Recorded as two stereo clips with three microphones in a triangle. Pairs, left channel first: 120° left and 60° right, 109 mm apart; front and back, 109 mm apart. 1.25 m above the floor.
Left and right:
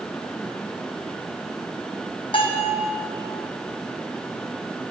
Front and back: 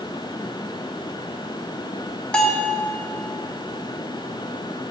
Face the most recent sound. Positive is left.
turn(degrees=80)